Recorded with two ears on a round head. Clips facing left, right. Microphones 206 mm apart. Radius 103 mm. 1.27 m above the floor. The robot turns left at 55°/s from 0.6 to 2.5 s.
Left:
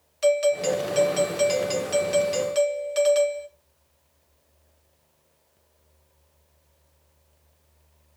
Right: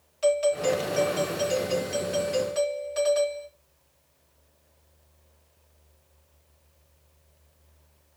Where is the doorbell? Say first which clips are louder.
Left 2 dB; 150° left, 2 m; by 3.5 s 45° left, 2 m.